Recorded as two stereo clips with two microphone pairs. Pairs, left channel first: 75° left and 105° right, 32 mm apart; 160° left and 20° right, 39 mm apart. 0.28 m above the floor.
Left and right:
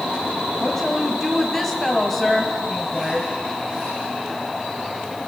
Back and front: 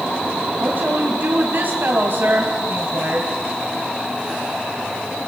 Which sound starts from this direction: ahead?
A woman speaking, at 0.6 s.